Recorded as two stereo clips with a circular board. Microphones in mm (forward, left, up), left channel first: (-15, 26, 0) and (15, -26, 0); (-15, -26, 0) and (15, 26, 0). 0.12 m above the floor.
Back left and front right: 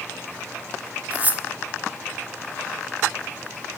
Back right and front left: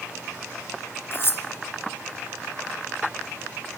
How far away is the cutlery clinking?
About 0.8 m.